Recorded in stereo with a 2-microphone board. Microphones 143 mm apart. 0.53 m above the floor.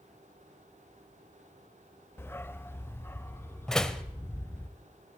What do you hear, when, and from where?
2.2 s a dog barking: 15° left (ahead or behind), 0.5 m
3.7 s a door slam: 5° left (ahead or behind), 1.5 m